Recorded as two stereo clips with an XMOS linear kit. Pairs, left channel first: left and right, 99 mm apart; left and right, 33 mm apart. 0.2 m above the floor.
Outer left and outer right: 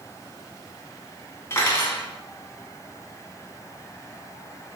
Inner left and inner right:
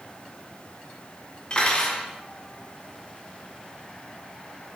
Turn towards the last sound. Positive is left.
turn(degrees=30)  # may be behind; listen again after turning